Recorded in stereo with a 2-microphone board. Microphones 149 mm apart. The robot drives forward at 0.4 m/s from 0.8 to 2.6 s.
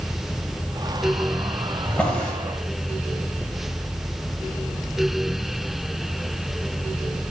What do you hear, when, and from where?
1.9 s a drawer: 10° left (ahead or behind), 1.7 m